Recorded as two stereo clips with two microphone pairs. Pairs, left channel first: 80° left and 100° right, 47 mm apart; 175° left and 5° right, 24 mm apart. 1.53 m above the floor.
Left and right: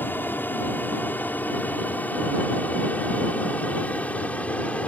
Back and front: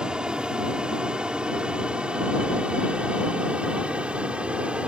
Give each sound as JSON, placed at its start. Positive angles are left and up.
{"t": 0.0, "sound": "an aircraft", "azimuth_deg": 40}